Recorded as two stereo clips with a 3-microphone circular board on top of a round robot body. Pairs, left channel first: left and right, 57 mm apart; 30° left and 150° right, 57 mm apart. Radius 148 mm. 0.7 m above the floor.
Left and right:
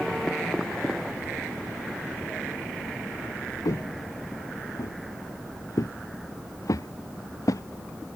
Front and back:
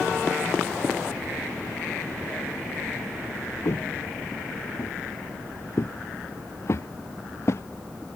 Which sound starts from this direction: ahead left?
Footsteps, at 3.6 s.